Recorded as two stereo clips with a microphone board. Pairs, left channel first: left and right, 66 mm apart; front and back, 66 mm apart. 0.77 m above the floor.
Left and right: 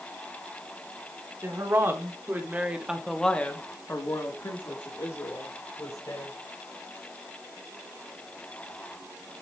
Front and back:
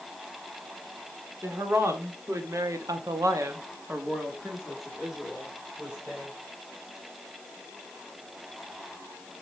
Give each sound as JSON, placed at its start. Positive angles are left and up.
{"t": 1.4, "sound": "a woman speaking", "azimuth_deg": -130, "distance_m": 2.0}